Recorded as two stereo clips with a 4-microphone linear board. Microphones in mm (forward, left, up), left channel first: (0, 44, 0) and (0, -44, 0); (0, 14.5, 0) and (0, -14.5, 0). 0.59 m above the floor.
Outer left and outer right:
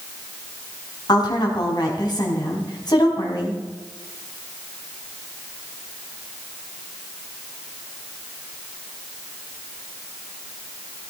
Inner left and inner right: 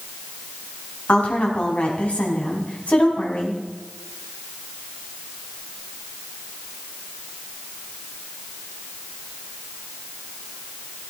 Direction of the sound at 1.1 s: 50° left (ahead or behind).